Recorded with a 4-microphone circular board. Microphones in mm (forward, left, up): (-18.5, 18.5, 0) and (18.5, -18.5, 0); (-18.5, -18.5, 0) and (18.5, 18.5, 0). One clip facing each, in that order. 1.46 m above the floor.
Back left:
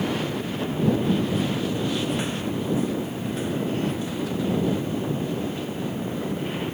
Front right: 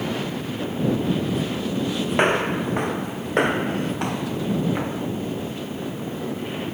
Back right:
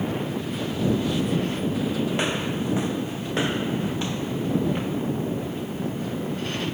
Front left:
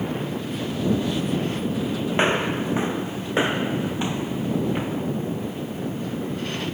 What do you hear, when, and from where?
2.1 s footsteps: 15° right; by 5.0 s 35° right